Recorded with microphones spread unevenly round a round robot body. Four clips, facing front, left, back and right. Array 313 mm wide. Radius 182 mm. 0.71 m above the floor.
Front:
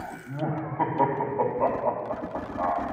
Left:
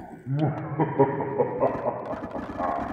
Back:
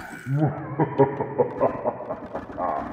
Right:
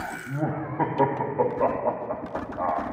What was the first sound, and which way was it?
Laughter, 165° left.